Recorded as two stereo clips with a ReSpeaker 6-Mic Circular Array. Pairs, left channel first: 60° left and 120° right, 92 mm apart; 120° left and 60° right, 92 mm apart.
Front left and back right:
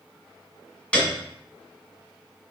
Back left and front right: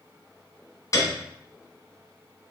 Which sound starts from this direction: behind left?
A piano, at 0.9 s.